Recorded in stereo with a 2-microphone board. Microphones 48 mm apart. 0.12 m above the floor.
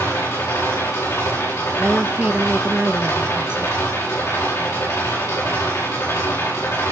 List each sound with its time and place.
0.0 s an engine running: 80° left, 10 m
1.8 s a woman speaking: 20° right (ahead or behind), 1.2 m